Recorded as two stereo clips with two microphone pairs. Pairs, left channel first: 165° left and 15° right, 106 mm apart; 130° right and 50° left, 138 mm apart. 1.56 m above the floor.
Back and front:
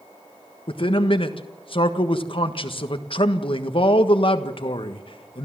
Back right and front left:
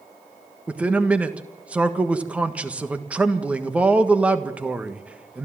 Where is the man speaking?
130° left, 1.5 m.